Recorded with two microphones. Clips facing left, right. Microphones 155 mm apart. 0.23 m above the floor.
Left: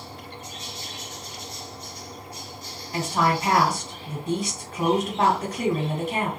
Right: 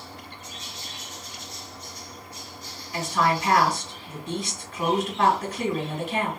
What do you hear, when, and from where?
2.9 s a woman speaking: 45° left (ahead or behind), 1.6 m